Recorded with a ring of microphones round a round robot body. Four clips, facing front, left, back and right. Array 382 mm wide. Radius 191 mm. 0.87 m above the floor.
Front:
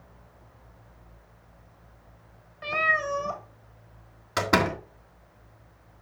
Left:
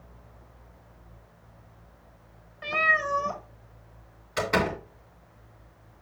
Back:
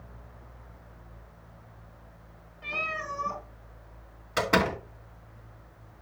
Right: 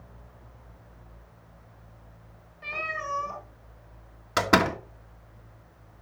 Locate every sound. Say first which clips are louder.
2.6 s a cat meowing: left 8 dB, front 8 dB; 40° left, 1.6 m
4.4 s a door slam: right 4 dB, front 1 dB; 70° right, 1.8 m